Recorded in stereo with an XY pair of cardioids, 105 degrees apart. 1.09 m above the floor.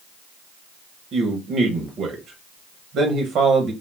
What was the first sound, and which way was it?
A man speaking, 70° right.